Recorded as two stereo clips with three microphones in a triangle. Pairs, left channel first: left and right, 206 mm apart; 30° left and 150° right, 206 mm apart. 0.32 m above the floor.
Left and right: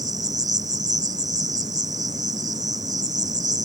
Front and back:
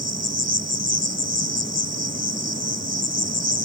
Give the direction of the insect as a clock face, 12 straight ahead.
1 o'clock.